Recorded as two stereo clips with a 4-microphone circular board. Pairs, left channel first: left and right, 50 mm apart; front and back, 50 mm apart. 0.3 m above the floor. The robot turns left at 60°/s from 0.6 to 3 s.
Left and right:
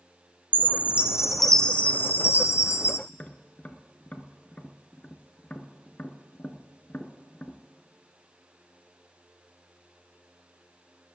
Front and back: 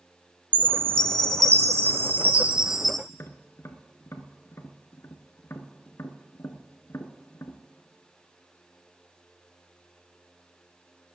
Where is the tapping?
30° left, 0.8 m.